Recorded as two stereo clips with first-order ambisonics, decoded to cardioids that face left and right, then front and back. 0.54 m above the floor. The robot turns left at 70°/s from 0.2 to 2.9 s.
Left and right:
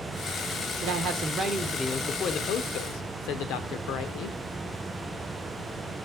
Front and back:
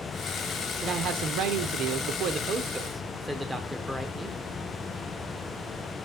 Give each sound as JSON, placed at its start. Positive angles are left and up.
{"t": 0.8, "sound": "a man speaking", "azimuth_deg": -120, "distance_m": 1.1}